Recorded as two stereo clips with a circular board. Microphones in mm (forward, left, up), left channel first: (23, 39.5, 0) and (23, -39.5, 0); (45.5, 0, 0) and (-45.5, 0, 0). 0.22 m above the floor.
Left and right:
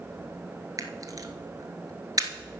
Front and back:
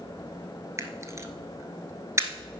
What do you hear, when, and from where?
0.8 s a camera shutter: 125° right, 1.0 m